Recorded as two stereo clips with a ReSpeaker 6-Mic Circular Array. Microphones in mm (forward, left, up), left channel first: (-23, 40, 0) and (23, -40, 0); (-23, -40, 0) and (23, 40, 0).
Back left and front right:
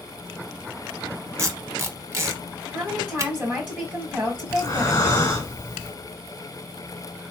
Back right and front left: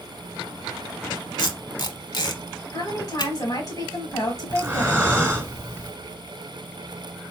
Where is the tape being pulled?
110° right, 0.9 m.